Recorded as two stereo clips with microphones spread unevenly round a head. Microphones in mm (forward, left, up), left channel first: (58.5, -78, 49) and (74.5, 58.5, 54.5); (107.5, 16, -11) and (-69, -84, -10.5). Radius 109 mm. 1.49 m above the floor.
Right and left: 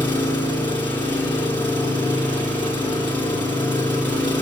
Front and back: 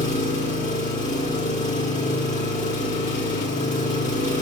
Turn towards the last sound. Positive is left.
turn(degrees=-20)